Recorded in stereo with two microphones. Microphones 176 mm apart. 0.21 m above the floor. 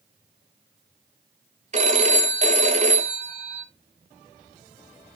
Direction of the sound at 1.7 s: 40° right (ahead or behind).